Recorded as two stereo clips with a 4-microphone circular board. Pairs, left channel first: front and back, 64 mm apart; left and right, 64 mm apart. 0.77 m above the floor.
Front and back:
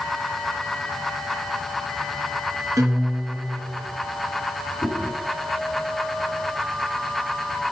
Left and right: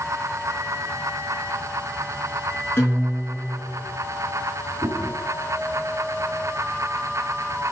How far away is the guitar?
About 4.5 m.